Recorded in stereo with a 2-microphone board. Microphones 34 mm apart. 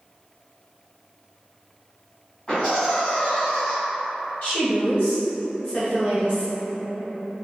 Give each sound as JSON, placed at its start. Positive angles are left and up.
{"t": 2.5, "sound": "laughter", "side_deg": 15, "distance_m": 1.9}
{"t": 4.4, "sound": "a woman speaking", "side_deg": 40, "distance_m": 1.9}